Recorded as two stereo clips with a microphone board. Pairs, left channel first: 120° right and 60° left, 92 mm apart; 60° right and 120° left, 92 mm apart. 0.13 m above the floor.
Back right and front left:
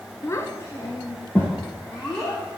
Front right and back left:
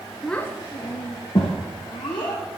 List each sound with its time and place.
0.2 s a child speaking: 145° right, 0.7 m; by 2.4 s 40° right, 3 m